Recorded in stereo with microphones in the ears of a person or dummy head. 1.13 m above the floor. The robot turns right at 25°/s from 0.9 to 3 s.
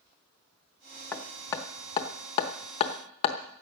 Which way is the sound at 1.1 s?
10° left (ahead or behind).